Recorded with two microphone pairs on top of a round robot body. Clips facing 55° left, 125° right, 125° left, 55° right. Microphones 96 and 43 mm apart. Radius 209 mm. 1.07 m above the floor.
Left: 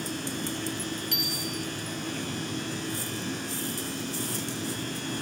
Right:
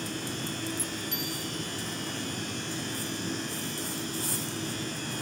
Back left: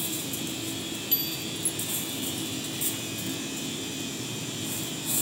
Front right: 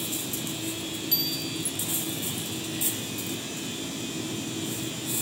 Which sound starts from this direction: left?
A bicycle bell, at 1.1 s.